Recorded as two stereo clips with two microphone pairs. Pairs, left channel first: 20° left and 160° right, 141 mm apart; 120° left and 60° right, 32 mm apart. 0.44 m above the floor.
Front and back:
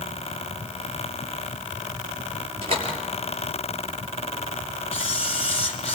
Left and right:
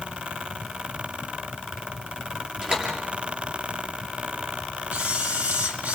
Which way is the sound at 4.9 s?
25° right.